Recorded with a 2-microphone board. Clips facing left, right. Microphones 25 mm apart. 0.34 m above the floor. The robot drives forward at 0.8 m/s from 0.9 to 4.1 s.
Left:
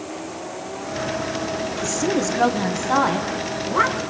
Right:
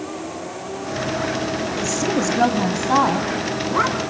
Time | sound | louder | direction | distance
1.8 | a woman speaking | even | 15° right (ahead or behind) | 1.5 m